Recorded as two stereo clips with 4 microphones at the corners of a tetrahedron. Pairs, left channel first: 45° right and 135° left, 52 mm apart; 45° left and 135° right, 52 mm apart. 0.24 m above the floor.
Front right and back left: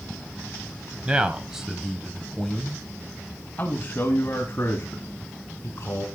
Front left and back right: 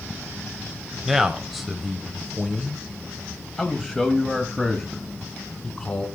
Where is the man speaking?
150° left, 1.5 m; by 6.0 s 25° right, 2.5 m.